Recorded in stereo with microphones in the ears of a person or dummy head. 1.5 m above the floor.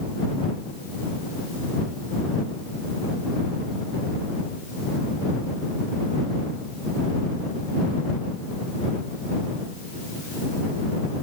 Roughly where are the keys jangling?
I don't hear keys jangling.